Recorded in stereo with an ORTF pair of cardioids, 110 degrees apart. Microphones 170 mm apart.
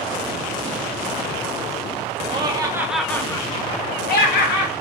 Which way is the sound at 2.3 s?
30° right.